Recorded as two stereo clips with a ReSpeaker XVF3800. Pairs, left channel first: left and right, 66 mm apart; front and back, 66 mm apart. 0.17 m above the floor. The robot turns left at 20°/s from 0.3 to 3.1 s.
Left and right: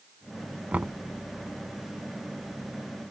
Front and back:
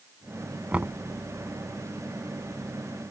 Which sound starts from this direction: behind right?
Knocking, at 0.7 s.